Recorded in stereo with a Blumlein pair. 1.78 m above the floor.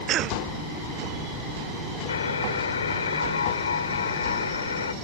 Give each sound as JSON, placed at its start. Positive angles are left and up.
{"t": 0.1, "sound": "a cough", "azimuth_deg": -35}
{"t": 2.1, "sound": "a buzzer", "azimuth_deg": 70}